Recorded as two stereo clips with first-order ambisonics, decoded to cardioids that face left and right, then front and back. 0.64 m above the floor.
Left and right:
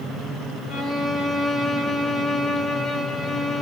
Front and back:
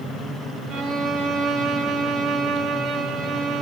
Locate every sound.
0.7 s a violin: 140° left, 1.1 m